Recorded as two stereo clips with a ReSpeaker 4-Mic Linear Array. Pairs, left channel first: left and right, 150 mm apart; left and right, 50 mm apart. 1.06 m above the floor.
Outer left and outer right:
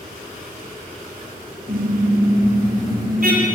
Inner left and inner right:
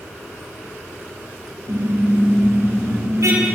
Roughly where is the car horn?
Right.